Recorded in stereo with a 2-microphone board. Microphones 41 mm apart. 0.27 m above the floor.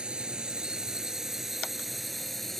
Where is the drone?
20° right (ahead or behind); by 2.6 s 5° left (ahead or behind).